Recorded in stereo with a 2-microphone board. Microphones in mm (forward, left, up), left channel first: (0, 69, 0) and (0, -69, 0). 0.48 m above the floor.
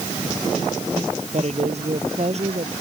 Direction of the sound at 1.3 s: 50° right (ahead or behind).